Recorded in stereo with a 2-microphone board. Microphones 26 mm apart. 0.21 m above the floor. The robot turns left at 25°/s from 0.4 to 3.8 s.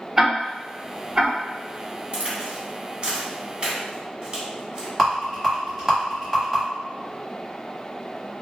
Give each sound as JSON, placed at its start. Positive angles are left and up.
{"t": 0.2, "sound": "ticking", "side_deg": -15, "distance_m": 1.6}
{"t": 2.1, "sound": "a crack", "side_deg": -40, "distance_m": 1.2}
{"t": 5.0, "sound": "a rattle", "side_deg": -5, "distance_m": 1.3}